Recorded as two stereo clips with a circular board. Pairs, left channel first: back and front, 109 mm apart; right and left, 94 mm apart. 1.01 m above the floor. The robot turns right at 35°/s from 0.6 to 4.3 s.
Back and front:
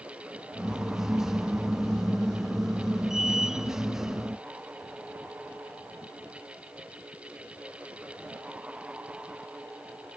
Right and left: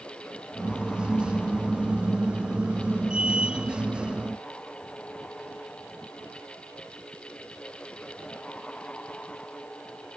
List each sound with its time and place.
Only background noise.